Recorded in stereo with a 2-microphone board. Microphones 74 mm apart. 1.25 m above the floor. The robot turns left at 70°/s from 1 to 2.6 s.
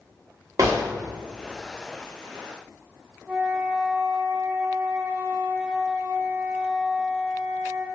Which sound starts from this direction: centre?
A flute, at 3.3 s.